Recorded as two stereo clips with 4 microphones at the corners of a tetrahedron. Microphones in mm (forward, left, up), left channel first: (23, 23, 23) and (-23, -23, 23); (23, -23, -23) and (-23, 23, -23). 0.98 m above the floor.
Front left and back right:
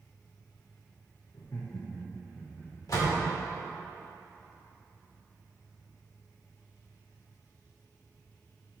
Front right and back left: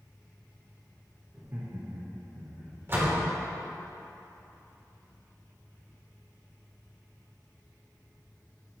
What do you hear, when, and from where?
1.3 s laughter: 75° left, 0.8 m; by 2.7 s 135° left, 1.3 m
2.9 s a door slam: 80° left, 1.7 m